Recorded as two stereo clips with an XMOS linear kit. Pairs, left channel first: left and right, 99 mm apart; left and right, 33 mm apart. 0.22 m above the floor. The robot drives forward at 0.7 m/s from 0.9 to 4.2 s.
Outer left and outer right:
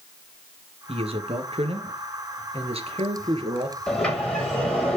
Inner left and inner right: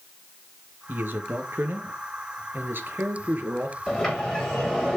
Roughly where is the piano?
No piano in this recording.